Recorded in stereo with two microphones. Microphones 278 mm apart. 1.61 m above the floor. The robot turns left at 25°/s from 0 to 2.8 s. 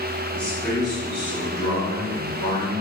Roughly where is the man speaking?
Behind.